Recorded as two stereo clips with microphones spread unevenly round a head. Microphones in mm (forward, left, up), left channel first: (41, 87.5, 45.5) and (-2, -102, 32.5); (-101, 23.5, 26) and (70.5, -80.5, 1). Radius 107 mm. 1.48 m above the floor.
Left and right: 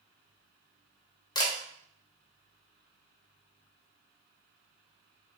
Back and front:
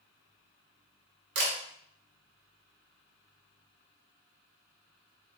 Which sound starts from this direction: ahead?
A camera shutter, at 1.4 s.